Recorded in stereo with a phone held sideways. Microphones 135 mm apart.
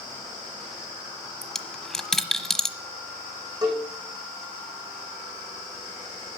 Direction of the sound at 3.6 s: 25° right (ahead or behind).